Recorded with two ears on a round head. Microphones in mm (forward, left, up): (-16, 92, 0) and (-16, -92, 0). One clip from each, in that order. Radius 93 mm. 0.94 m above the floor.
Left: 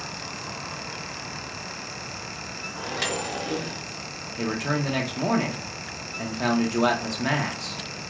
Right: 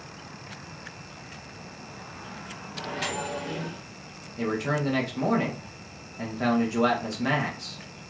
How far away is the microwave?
About 0.8 m.